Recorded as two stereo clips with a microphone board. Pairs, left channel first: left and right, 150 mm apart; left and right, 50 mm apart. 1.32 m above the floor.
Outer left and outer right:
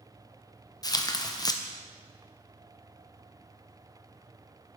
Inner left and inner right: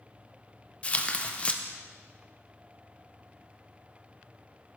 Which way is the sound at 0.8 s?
25° left (ahead or behind).